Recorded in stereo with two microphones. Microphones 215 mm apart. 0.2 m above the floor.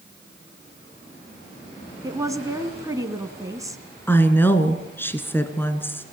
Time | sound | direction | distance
2.0 | a woman speaking | 15° right (ahead or behind) | 1.8 m
4.1 | a woman speaking | 10° left (ahead or behind) | 2 m